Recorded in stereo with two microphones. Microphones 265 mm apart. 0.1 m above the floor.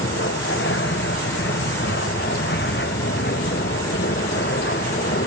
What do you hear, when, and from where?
0.0 s an aircraft: 45° left (ahead or behind); by 5.3 s 40° left (ahead or behind)